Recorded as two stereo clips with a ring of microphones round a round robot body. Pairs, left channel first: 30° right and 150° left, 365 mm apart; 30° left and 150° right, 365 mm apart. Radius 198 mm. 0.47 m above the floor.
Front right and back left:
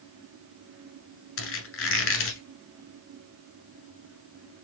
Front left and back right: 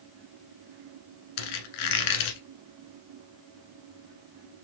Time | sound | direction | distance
1.4 | a squeak | 25° left | 1.3 m